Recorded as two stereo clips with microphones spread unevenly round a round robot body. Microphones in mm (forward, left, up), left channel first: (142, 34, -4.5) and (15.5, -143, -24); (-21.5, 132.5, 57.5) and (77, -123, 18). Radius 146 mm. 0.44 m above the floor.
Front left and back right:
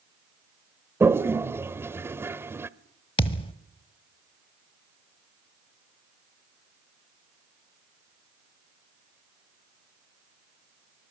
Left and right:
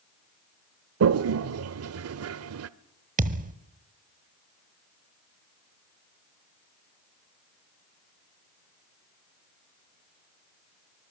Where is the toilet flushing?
50° right, 0.7 m.